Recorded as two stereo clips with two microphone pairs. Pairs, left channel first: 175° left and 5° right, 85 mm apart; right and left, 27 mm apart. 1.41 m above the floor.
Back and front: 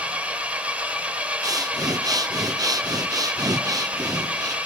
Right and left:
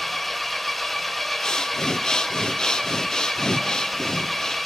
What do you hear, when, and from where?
0.0 s an engine running: 25° right, 1.2 m
1.4 s breathing: 35° right, 0.6 m